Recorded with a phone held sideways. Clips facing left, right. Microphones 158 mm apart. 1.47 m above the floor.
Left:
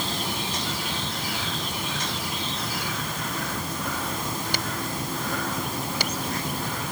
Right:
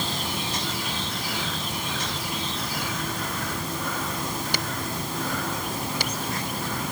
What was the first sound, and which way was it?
Only background noise.